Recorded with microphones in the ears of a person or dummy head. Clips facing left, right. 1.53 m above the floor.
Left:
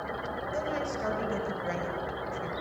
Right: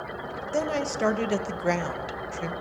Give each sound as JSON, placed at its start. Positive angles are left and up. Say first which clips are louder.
{"t": 0.5, "sound": "a woman speaking", "louder": "right 7 dB", "side_deg": -70, "distance_m": 2.5}